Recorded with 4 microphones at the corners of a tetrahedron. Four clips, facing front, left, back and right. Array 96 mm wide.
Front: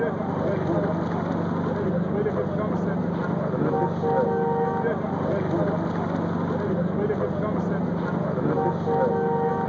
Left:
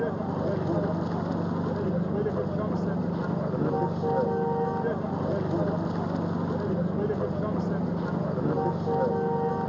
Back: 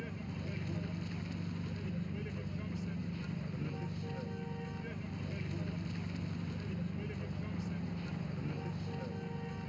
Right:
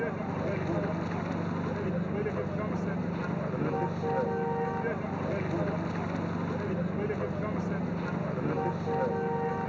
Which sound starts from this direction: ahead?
A vehicle, at 0.0 s.